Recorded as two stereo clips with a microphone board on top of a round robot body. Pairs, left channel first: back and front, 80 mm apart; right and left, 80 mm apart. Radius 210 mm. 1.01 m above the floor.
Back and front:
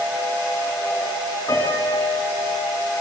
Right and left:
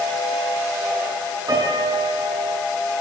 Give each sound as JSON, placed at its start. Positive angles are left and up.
{"t": 1.5, "sound": "a piano", "azimuth_deg": 130, "distance_m": 7.5}